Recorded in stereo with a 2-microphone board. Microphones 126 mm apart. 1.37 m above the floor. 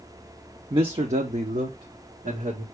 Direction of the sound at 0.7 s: 35° right (ahead or behind).